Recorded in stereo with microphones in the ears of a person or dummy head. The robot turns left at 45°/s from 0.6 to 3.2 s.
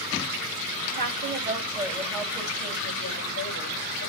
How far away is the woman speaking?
About 8 m.